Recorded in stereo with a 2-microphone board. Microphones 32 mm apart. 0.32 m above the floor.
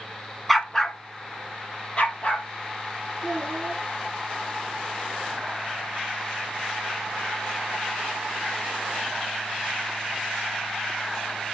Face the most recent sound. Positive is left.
turn(degrees=5)  # may be behind; listen again after turning